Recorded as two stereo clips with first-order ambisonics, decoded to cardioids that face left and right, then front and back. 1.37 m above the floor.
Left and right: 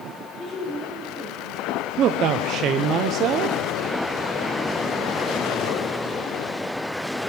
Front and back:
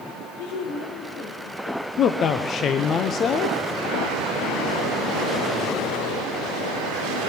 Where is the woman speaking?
15° left, 3.5 m; by 1.9 s 5° left, 3.5 m.